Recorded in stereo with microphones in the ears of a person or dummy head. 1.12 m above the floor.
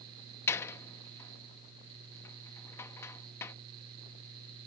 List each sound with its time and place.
0.5 s a door slam: 20° left (ahead or behind)